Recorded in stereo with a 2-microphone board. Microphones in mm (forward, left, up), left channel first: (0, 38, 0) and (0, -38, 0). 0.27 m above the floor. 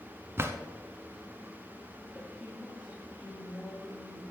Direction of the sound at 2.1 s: 15° right (ahead or behind).